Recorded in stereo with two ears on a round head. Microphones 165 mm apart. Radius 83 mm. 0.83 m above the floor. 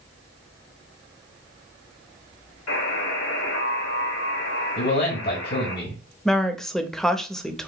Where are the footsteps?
I don't hear footsteps.